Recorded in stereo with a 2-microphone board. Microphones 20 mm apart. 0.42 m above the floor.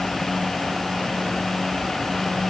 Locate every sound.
Only background noise.